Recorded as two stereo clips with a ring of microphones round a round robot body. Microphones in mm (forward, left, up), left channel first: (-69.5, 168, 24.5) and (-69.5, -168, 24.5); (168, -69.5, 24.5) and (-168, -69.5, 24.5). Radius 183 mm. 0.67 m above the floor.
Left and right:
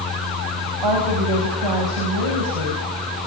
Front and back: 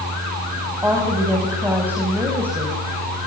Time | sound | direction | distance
0.8 | a woman speaking | 95° right | 5 m